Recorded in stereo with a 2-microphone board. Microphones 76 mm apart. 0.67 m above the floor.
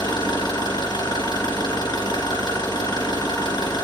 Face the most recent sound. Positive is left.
turn(degrees=80)